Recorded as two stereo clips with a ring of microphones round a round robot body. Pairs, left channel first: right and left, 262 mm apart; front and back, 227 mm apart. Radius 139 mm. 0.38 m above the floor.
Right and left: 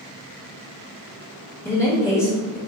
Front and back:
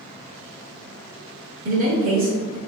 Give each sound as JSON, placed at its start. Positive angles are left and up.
{"t": 1.6, "sound": "a man speaking", "azimuth_deg": -160, "distance_m": 1.2}